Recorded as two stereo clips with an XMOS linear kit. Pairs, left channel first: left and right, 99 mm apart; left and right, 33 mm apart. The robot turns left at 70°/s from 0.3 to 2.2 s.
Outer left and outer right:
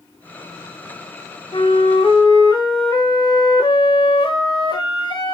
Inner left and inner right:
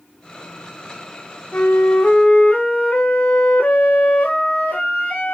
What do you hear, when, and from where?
1.5 s a flute: 90° left, 4 m; by 5.3 s 40° left, 4 m